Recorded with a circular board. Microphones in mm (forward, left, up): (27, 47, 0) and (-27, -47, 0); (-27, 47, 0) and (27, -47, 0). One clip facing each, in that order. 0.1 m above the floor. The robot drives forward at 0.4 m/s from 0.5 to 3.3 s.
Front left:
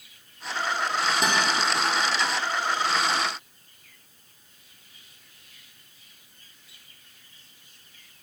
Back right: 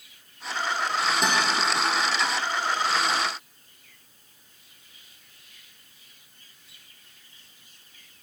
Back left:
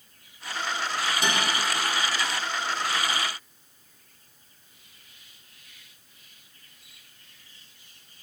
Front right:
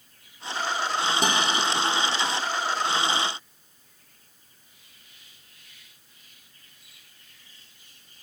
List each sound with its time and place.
1.2 s a guitar: 30° right, 1.2 m